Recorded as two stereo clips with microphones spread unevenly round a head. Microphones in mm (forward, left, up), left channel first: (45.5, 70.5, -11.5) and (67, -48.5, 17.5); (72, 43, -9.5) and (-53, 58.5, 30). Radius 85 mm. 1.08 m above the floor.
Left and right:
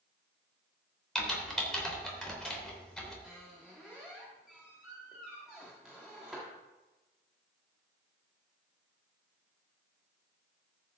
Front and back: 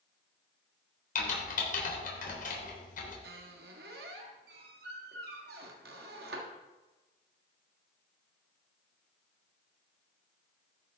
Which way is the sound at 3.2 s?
165° right.